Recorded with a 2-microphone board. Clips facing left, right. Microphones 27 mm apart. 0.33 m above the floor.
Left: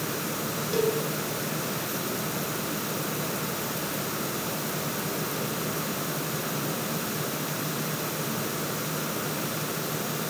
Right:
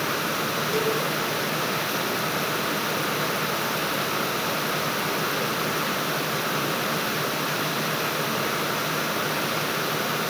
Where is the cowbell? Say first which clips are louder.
Left 1 dB; centre (ahead or behind), 1.3 m.